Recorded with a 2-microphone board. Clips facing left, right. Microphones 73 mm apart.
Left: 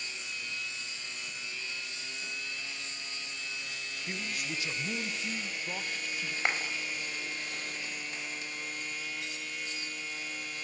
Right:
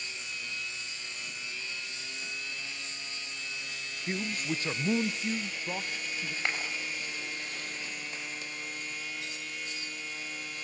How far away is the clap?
About 6.5 m.